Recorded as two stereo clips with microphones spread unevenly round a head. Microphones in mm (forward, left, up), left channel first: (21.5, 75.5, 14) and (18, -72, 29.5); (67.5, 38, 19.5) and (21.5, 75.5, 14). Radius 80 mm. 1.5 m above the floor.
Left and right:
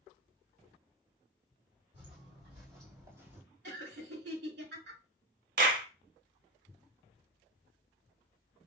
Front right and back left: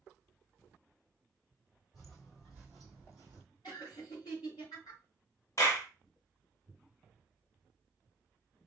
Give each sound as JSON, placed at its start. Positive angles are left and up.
{"t": 1.9, "sound": "footsteps", "azimuth_deg": -130, "distance_m": 2.5}
{"t": 3.6, "sound": "laughter", "azimuth_deg": -95, "distance_m": 4.0}
{"t": 5.6, "sound": "a clap", "azimuth_deg": -90, "distance_m": 1.0}